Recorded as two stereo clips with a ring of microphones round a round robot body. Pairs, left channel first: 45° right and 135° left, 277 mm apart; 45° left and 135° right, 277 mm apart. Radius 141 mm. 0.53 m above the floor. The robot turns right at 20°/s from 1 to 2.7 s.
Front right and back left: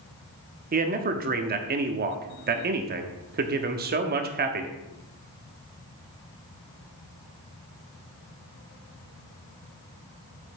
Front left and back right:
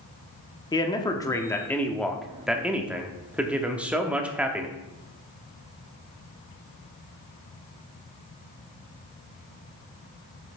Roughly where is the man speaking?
Left.